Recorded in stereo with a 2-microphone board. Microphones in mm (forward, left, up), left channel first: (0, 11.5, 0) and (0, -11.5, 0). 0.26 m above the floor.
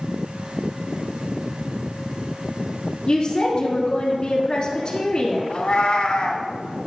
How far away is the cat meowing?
About 1.0 m.